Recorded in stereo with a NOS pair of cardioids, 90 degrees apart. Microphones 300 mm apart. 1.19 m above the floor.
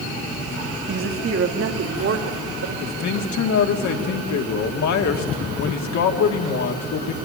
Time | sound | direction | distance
0.9 | a woman speaking | 40° right | 1.8 m
2.8 | a man speaking | 65° left | 2.5 m